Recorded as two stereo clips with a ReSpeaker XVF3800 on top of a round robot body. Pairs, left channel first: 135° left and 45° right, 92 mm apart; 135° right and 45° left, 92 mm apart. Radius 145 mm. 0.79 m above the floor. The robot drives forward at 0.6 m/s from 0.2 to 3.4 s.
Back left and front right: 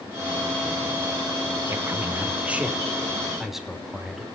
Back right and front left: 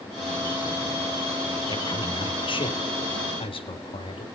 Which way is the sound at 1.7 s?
105° right.